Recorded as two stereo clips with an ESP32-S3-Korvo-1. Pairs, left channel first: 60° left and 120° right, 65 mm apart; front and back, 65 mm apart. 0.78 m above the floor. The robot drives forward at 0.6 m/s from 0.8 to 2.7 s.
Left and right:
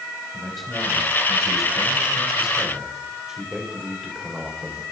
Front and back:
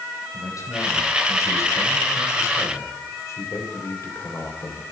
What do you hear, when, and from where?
0.3 s a man speaking: 30° right, 4.5 m; by 4.8 s 40° right, 3.5 m